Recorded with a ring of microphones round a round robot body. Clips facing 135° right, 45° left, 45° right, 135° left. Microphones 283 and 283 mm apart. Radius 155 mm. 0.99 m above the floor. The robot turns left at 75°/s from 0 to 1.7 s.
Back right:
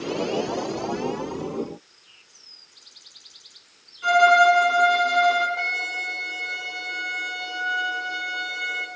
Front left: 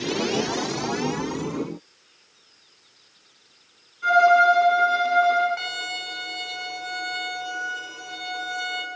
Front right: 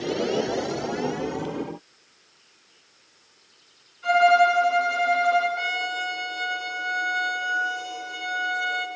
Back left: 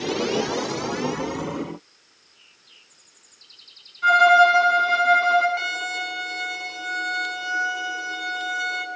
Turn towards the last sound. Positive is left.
turn(degrees=95)